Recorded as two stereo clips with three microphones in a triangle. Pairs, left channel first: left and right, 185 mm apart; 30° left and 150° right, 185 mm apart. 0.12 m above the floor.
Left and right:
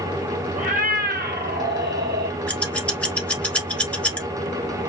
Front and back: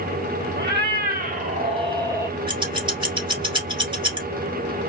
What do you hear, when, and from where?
0.6 s a cat meowing: 135° right, 0.9 m; by 2.4 s 70° right, 0.8 m
2.5 s scissors: 170° left, 1.3 m